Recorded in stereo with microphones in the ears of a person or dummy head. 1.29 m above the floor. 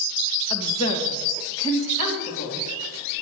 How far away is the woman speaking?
About 1.3 m.